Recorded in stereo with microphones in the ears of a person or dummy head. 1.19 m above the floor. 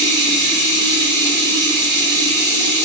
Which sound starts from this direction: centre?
Running water, at 0.0 s.